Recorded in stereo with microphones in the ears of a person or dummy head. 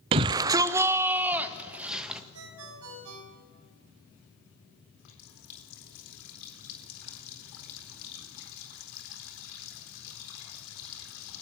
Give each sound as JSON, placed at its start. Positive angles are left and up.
{"t": 0.1, "sound": "a shout", "side_deg": -25, "distance_m": 0.5}
{"t": 2.3, "sound": "a ringtone", "side_deg": -80, "distance_m": 6.5}
{"t": 5.0, "sound": "a running tap", "side_deg": 75, "distance_m": 4.0}